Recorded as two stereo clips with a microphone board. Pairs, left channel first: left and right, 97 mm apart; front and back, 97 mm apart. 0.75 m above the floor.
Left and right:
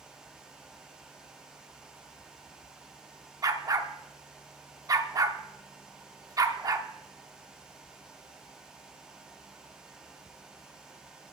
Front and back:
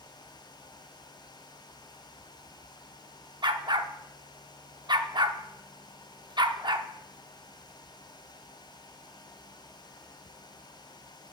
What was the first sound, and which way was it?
A dog barking, 140° right.